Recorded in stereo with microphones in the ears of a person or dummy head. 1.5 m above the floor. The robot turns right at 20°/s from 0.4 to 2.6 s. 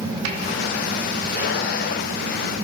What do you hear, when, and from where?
0.2 s a snare drum: 75° right (ahead or behind), 3.5 m